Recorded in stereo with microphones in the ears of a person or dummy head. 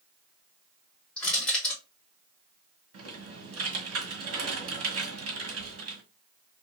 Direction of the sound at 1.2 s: 5° left (ahead or behind).